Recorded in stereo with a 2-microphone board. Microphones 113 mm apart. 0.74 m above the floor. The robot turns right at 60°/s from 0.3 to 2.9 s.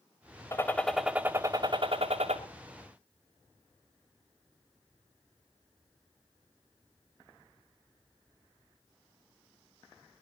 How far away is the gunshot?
About 2.5 m.